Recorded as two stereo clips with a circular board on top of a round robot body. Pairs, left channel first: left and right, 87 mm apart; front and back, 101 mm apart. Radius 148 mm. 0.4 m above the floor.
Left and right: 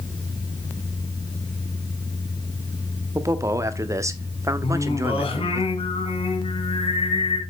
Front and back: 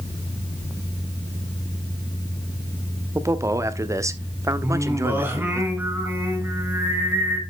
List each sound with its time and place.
3.1 s a man speaking: 130° right, 1.2 m
4.6 s singing: 105° left, 3 m